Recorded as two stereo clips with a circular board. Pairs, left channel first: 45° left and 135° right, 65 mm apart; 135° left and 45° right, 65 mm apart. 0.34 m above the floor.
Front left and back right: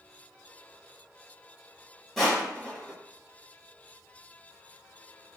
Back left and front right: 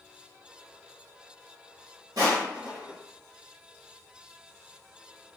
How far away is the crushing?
About 1.1 m.